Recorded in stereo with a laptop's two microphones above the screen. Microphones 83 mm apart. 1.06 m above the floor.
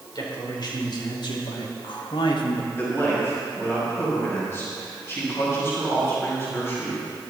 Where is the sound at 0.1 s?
55° left (ahead or behind), 4.5 m; by 2.7 s 60° left (ahead or behind), 1.3 m.